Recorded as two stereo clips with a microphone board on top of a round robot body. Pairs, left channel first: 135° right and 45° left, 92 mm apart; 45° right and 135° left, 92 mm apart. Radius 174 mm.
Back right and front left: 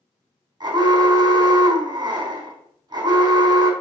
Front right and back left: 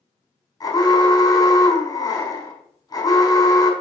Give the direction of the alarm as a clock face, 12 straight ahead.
12 o'clock.